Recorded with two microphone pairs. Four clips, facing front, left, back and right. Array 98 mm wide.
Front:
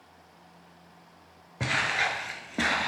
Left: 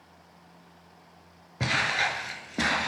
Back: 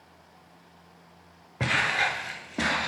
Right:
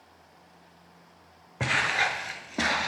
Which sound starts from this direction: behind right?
Footsteps, at 1.6 s.